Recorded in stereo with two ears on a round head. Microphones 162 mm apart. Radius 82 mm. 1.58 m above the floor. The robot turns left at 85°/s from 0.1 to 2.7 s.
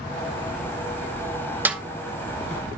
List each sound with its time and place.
1.6 s a snare drum: 10° right (ahead or behind), 2 m; by 1.8 s centre (ahead or behind), 2 m